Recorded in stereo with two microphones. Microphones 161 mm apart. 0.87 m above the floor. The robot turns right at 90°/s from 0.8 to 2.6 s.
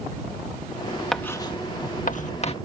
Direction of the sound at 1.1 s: Centre (ahead or behind).